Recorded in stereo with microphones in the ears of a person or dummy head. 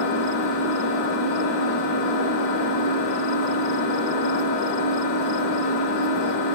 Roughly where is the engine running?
Left.